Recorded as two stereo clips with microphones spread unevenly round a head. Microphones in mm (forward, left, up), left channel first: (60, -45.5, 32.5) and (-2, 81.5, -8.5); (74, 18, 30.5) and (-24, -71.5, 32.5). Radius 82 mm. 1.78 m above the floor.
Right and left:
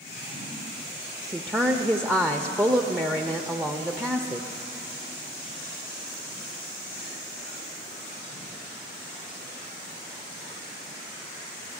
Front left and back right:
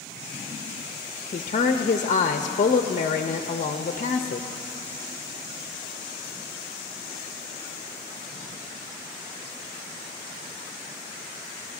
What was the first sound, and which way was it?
A woman speaking, 30° left.